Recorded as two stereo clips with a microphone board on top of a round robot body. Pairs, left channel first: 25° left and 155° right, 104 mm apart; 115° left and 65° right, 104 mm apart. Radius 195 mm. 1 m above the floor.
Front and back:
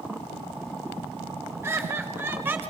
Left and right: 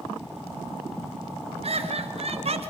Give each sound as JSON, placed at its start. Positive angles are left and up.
{"t": 1.6, "sound": "laughter", "azimuth_deg": -90, "distance_m": 5.5}